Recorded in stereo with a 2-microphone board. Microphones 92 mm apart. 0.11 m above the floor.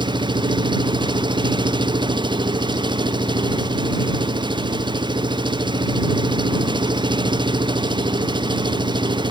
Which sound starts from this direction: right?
An engine running, at 0.0 s.